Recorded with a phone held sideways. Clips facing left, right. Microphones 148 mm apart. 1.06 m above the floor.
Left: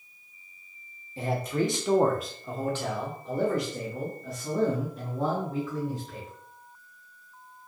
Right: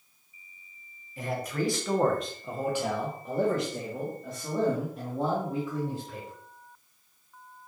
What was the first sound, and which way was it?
A man speaking, 30° left (ahead or behind).